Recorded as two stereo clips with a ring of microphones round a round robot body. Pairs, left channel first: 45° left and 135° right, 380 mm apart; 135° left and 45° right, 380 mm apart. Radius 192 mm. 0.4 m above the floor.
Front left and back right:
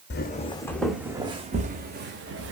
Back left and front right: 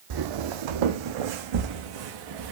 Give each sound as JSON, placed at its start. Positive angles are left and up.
{"t": 0.1, "sound": "footsteps", "azimuth_deg": -15, "distance_m": 0.8}